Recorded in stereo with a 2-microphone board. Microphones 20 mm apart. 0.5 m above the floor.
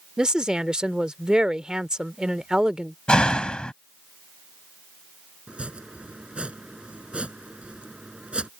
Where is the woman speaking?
40° right (ahead or behind).